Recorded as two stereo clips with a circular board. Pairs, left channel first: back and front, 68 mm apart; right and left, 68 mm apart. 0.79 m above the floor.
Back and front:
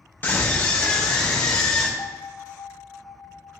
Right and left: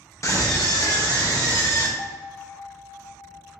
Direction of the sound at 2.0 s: 115° right.